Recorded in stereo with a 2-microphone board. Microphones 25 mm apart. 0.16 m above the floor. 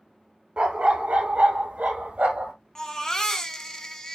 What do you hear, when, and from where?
0.6 s a dog barking: 50° right (ahead or behind), 1.1 m; by 2.5 s 70° right (ahead or behind), 1.5 m
2.8 s a baby crying: 20° left (ahead or behind), 1.1 m